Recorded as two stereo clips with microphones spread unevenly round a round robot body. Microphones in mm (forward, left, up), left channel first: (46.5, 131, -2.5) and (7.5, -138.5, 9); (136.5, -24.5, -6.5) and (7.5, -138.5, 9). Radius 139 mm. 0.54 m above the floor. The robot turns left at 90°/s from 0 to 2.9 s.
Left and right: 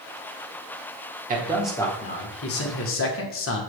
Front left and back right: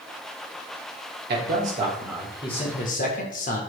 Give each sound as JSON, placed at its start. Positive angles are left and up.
{"t": 1.3, "sound": "a man speaking", "azimuth_deg": -155, "distance_m": 1.9}